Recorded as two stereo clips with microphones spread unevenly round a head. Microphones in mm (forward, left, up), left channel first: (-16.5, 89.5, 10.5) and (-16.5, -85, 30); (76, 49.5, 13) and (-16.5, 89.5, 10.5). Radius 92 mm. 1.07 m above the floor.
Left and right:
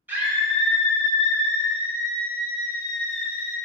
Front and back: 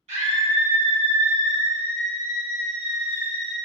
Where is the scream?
170° right, 1.3 m.